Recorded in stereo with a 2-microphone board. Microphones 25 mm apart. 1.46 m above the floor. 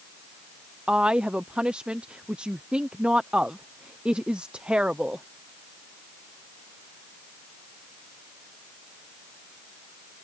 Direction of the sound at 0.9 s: 50° right (ahead or behind).